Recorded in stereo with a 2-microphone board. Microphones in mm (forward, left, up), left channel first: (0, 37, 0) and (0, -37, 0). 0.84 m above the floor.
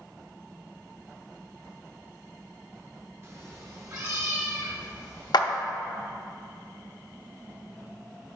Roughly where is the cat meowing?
Right.